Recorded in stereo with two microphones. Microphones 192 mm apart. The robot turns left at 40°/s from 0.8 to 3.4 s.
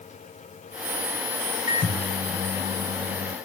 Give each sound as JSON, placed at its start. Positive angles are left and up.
{"t": 1.7, "sound": "a microwave", "azimuth_deg": -15, "distance_m": 2.5}